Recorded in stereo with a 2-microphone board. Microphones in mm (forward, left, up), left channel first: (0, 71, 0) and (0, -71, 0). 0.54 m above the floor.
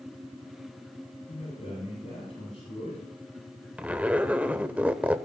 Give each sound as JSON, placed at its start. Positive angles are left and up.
{"t": 1.3, "sound": "a man speaking", "side_deg": 60, "distance_m": 9.0}
{"t": 3.8, "sound": "a zipper", "side_deg": -10, "distance_m": 0.8}